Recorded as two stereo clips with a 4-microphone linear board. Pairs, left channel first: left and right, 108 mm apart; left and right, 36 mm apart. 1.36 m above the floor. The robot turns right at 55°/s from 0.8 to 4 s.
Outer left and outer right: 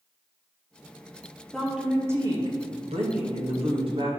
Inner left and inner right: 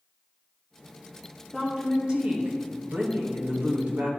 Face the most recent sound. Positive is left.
turn(degrees=-50)